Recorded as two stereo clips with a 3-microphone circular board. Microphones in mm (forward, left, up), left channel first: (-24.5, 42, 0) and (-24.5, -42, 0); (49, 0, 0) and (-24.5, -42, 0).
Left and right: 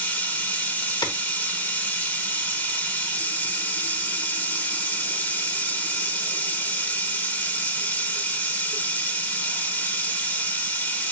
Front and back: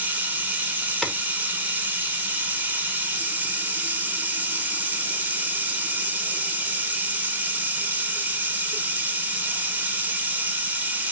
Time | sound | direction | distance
0.0 | running water | 150° left | 0.9 m
1.0 | a clap | 115° left | 0.8 m